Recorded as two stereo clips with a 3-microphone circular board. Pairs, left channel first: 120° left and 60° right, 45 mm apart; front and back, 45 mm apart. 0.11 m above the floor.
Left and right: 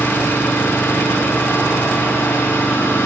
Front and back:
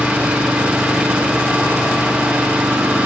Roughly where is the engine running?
Behind left.